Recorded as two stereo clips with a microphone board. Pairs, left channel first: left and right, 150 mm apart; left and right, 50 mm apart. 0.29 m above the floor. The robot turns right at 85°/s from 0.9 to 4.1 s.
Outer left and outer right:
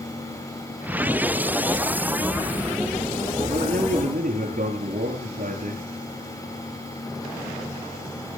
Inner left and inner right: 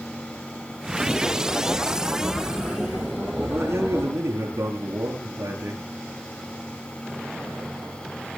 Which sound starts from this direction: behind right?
A man speaking, at 3.4 s.